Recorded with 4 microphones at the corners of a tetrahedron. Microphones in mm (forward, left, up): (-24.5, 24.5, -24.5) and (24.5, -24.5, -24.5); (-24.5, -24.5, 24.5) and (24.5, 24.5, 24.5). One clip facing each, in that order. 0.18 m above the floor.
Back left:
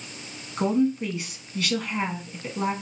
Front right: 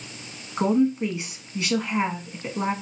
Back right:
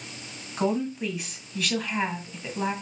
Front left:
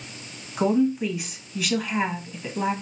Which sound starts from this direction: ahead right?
A woman speaking, at 0.6 s.